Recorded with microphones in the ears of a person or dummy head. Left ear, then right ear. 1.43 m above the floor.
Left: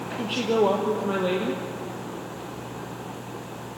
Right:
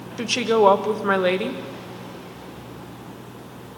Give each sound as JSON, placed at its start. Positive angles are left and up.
{"t": 0.2, "sound": "a woman speaking", "side_deg": -55, "distance_m": 1.3}